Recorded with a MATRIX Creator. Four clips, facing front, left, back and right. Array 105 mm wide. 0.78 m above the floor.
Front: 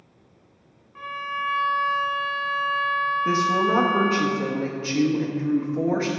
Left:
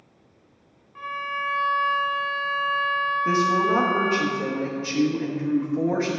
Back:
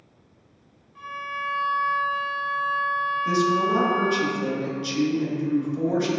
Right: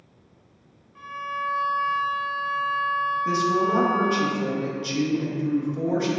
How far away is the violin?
About 0.5 m.